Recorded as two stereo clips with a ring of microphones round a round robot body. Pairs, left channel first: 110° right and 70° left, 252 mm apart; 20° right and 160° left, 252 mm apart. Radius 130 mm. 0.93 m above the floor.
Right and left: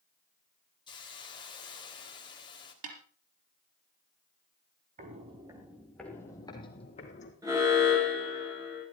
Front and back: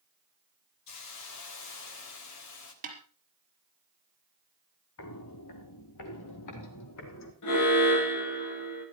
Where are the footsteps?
10° left, 2.0 m; by 7.3 s 50° right, 3.5 m.